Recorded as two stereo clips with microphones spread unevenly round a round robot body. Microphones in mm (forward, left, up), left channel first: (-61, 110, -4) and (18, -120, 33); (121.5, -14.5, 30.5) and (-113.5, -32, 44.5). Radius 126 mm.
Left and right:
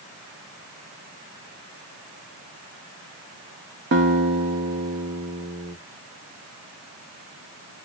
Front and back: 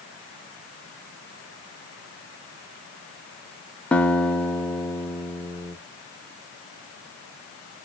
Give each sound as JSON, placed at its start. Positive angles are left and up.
{"t": 3.9, "sound": "a guitar", "azimuth_deg": -70, "distance_m": 0.7}